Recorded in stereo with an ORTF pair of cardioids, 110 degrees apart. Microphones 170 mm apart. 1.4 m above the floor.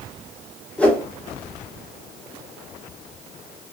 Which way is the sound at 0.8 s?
10° left.